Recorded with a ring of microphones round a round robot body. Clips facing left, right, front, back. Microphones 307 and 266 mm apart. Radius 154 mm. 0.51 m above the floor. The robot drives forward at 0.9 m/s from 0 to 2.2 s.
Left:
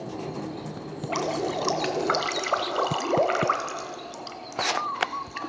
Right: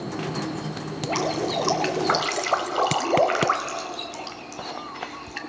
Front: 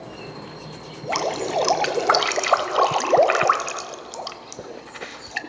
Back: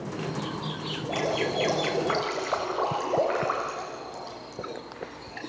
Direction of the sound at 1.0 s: Straight ahead.